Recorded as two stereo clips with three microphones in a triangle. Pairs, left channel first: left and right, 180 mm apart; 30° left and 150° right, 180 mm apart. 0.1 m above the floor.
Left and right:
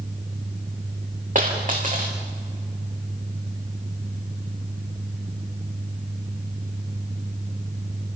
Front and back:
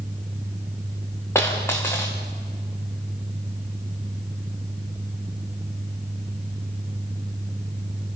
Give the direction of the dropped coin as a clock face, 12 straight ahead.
2 o'clock.